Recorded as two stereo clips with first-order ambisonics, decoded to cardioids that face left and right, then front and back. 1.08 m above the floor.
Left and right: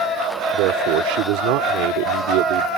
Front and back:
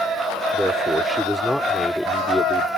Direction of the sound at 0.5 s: 90° right.